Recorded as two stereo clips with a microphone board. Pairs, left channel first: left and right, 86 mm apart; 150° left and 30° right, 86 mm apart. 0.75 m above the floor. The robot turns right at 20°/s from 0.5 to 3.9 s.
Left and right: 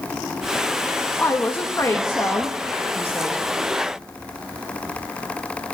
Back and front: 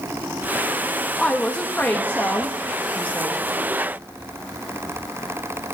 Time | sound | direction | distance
1.2 | a woman speaking | 75° left | 0.9 m